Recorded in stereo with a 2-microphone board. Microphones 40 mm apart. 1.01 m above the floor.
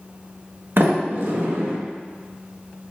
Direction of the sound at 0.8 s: 60° right (ahead or behind).